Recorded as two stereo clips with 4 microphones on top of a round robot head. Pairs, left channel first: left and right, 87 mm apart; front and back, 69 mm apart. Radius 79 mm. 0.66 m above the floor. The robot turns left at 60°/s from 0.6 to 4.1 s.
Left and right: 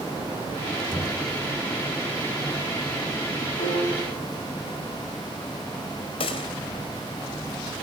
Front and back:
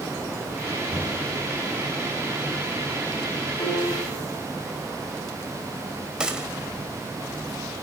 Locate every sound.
0.9 s knocking: 175° right, 8 m; by 1.3 s 160° left, 8 m
3.6 s a piano: 45° left, 9.5 m; by 4.2 s 15° left, 9.5 m
6.2 s a gunshot: 105° left, 4 m